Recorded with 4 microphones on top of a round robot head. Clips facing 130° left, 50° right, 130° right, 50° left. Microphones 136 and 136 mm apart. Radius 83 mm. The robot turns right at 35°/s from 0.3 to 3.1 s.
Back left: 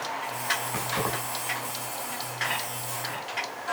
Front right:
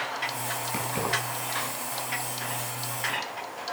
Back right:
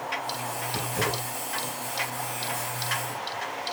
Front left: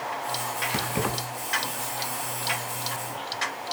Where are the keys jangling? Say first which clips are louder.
Front right 1 dB, front left 1 dB; 15° left, 9 m; by 1.1 s 30° left, 9 m.